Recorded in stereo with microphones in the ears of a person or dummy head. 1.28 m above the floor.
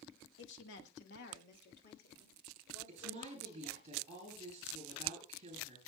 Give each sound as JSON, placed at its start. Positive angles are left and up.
{"t": 0.4, "sound": "a woman speaking", "side_deg": 75, "distance_m": 1.5}
{"t": 2.9, "sound": "a woman speaking", "side_deg": -40, "distance_m": 8.5}